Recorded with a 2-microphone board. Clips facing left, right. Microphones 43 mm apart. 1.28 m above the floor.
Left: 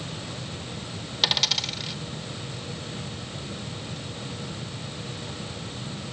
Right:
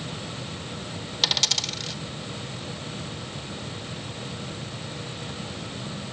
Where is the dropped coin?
10° left (ahead or behind), 2 m.